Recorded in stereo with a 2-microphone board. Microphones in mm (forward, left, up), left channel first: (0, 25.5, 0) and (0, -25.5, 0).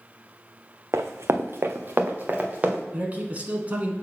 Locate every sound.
0.9 s running footsteps: 85° right, 0.7 m; by 2.8 s 30° right (ahead or behind), 1.9 m
2.9 s a man speaking: 30° right (ahead or behind), 1.2 m